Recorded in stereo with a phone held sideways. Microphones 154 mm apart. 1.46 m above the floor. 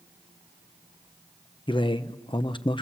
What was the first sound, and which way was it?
A man speaking, 30° left (ahead or behind).